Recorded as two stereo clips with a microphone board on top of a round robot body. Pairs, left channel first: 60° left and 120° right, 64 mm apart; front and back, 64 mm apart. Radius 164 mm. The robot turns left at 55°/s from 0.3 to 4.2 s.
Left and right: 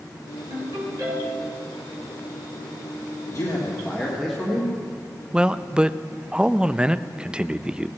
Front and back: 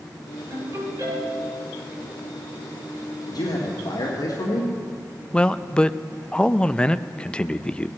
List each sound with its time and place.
0.5 s a ringtone: 125° right, 6 m; by 1.6 s 175° left, 6 m
3.3 s a man speaking: 25° left, 1.6 m; by 4.7 s 30° right, 1.6 m
5.3 s a man speaking: 60° right, 0.5 m